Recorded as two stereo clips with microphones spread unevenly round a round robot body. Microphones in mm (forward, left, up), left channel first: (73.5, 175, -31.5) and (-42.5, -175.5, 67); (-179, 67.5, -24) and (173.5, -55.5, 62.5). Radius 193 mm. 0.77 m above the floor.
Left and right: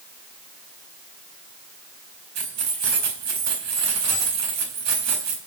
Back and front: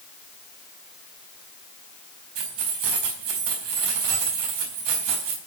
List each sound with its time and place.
2.4 s keys jangling: 60° right, 4.5 m